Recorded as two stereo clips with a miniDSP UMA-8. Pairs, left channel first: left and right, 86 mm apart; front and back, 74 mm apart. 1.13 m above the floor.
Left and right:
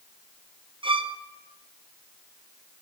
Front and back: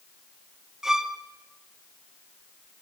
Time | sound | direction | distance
0.8 | a violin | 95° right | 0.6 m